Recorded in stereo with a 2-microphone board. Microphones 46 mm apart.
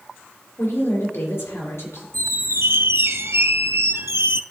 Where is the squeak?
75° right (ahead or behind), 0.7 m.